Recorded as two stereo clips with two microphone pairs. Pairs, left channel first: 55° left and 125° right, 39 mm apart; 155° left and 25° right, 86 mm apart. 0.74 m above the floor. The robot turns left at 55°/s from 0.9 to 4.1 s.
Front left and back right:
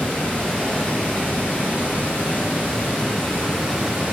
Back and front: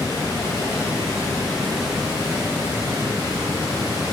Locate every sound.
0.0 s running water: 110° left, 1.3 m; by 4.1 s 65° right, 1.3 m